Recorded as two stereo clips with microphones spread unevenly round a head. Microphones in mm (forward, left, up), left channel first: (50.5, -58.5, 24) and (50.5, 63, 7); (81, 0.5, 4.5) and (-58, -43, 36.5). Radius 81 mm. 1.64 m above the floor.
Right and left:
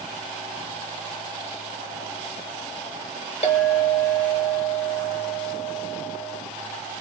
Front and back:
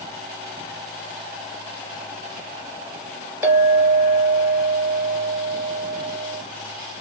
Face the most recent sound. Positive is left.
turn(degrees=-100)